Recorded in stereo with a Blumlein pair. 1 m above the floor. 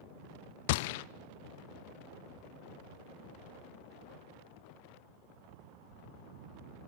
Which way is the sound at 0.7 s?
50° left.